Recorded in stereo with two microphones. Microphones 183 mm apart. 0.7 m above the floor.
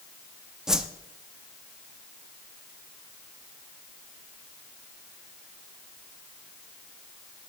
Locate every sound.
0.7 s a whoosh: 5° right (ahead or behind), 0.5 m